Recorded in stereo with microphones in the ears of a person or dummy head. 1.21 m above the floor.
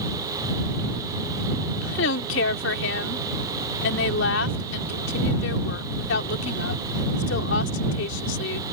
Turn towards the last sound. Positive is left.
turn(degrees=70)  # may be behind; listen again after turning